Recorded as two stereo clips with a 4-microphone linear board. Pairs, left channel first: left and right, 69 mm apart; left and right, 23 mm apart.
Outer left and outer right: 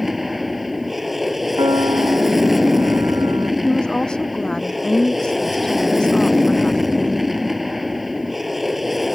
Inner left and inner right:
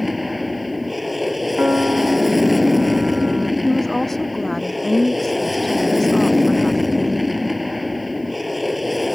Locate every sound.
0.0 s an aircraft: centre (ahead or behind)
1.6 s a piano: 80° right
3.6 s a woman speaking: 10° left (ahead or behind)